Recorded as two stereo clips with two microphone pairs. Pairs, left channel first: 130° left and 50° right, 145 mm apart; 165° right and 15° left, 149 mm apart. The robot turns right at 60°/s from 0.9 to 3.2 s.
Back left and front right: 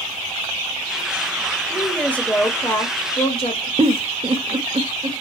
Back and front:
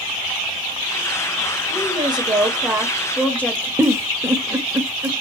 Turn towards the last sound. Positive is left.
turn(degrees=-45)